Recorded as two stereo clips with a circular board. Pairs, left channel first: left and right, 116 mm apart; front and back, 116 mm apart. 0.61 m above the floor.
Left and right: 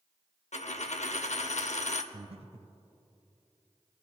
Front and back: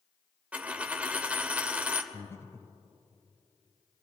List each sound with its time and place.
0.5 s a dropped coin: 100° left, 0.7 m
2.1 s breathing: 65° right, 0.5 m